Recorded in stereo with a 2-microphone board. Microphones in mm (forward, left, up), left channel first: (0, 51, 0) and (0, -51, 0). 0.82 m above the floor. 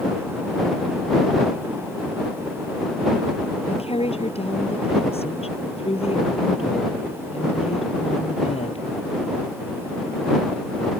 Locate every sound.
3.7 s a woman speaking: 75° left (ahead or behind)